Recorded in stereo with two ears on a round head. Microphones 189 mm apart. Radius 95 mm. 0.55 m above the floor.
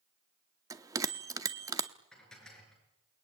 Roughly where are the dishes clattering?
Centre.